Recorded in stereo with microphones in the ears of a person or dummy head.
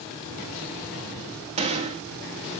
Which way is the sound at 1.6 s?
35° right (ahead or behind).